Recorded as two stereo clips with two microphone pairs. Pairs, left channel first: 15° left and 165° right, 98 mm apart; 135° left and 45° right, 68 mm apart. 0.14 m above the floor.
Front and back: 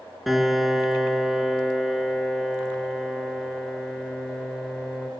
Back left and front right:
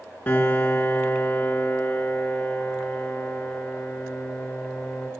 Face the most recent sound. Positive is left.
turn(degrees=110)